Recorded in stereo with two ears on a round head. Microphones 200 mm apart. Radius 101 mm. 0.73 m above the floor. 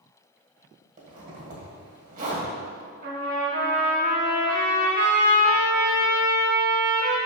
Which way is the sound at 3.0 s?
45° right (ahead or behind).